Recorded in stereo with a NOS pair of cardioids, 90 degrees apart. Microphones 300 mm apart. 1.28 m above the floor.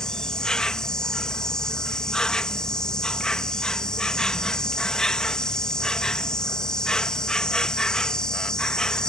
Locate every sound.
0.0 s an insect: straight ahead